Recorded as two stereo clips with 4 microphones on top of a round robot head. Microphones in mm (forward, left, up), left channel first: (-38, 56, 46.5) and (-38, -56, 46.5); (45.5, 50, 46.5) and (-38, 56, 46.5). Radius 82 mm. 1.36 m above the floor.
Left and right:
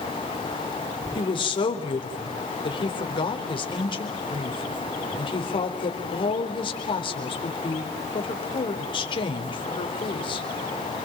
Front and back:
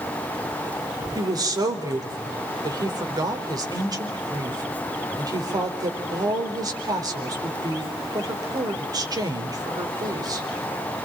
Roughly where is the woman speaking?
Behind left.